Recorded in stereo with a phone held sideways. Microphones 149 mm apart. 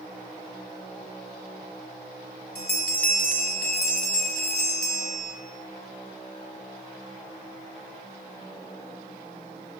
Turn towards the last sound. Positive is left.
turn(degrees=85)